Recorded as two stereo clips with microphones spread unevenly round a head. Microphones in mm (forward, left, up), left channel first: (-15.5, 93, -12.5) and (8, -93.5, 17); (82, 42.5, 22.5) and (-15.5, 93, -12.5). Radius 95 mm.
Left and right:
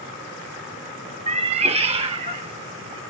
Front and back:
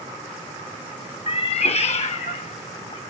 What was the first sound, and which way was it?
A cat meowing, 35° right.